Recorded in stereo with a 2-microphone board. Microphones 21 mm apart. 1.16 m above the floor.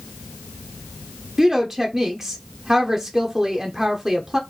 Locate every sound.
1.4 s a woman speaking: 15° right (ahead or behind), 0.6 m